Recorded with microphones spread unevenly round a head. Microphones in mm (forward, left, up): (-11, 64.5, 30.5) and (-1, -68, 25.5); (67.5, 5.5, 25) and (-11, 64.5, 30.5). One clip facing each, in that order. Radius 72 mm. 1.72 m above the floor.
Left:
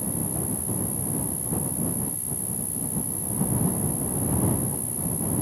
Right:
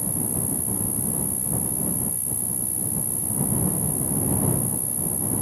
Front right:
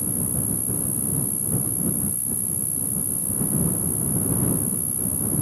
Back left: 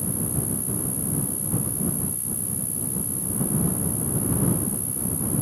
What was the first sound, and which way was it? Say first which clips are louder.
An insect: even, even; 15° right.